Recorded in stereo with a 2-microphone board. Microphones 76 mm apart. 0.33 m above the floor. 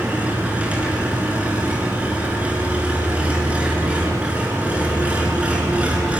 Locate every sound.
0.0 s an engine running: 15° right (ahead or behind), 4.5 m